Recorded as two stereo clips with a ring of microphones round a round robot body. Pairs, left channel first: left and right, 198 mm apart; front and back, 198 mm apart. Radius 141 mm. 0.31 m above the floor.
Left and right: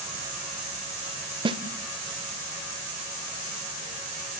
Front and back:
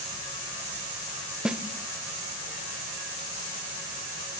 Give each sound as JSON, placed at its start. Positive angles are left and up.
{"t": 1.4, "sound": "a snare drum", "azimuth_deg": -100, "distance_m": 0.9}